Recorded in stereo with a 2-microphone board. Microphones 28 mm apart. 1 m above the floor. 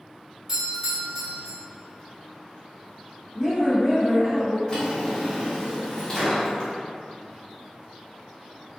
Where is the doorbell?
20° right (ahead or behind), 0.8 m.